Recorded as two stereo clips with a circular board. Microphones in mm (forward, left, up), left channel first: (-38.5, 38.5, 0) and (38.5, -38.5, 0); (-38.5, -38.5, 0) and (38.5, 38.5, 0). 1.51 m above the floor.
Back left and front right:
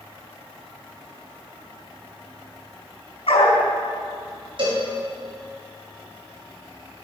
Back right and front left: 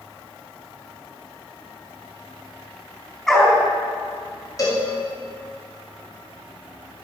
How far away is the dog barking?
About 3.5 m.